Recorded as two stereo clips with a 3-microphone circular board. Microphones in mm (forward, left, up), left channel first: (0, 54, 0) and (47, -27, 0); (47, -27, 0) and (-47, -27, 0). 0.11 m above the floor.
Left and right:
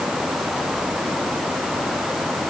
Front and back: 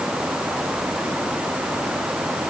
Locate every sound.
Only background noise.